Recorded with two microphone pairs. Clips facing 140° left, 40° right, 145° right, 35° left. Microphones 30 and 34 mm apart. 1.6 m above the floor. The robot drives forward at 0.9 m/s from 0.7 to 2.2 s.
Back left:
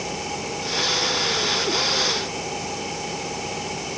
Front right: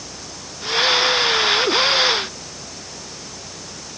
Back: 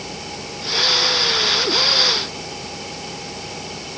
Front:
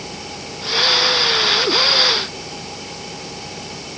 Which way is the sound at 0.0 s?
120° left.